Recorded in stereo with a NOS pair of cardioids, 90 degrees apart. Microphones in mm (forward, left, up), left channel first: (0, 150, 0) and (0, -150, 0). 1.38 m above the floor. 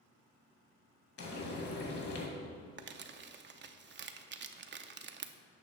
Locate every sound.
1.2 s frying: 50° left, 2.5 m
2.8 s crumpling: 40° right, 0.7 m